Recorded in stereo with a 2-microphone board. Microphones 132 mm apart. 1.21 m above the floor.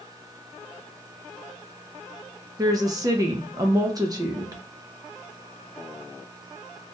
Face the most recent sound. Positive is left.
turn(degrees=-30)  # may be behind; listen again after turning